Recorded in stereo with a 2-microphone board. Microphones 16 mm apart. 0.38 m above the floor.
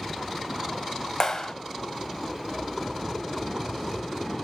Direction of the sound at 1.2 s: 30° left (ahead or behind).